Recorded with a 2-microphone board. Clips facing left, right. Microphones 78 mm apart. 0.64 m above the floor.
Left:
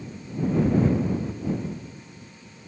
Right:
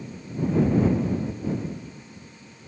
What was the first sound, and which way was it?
Only background noise.